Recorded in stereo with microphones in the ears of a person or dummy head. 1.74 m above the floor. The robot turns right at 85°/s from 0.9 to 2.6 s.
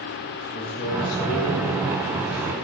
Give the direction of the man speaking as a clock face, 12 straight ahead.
11 o'clock.